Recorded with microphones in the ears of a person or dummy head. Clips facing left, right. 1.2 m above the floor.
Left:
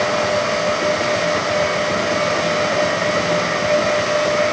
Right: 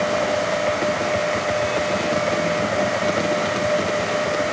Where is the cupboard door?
I don't hear a cupboard door.